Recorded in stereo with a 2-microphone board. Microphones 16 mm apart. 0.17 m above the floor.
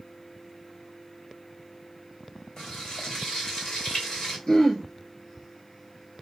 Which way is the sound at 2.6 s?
40° left (ahead or behind).